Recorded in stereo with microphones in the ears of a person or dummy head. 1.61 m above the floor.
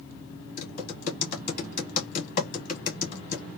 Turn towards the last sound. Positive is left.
turn(degrees=45)  # may be behind; listen again after turning